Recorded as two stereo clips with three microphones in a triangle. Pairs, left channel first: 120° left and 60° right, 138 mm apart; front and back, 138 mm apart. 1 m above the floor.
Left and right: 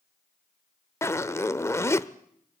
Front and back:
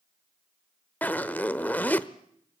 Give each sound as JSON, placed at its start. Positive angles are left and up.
{"t": 1.0, "sound": "a zipper", "azimuth_deg": 65, "distance_m": 0.7}